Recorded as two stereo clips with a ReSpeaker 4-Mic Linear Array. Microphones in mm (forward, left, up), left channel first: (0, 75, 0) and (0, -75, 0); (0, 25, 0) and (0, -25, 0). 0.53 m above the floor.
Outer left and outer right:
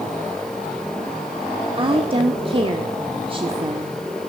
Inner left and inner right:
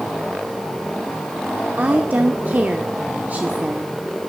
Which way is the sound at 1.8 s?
35° right (ahead or behind).